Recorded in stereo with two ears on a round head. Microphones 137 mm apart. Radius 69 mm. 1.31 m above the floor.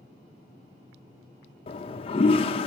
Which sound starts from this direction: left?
A toilet flushing, at 1.7 s.